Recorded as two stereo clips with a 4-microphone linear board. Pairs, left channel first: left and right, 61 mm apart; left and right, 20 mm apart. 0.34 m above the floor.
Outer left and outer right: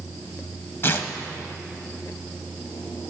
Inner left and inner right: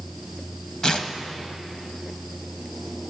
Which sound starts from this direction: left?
Tearing paper, at 0.8 s.